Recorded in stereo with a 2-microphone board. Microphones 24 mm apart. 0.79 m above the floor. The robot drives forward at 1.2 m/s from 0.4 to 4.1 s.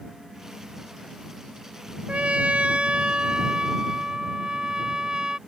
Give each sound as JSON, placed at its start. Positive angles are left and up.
{"t": 2.1, "sound": "a trumpet", "side_deg": -80}